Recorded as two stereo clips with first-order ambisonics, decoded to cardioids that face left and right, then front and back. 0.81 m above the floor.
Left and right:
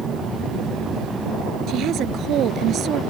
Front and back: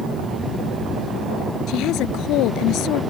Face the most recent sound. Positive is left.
turn(degrees=-35)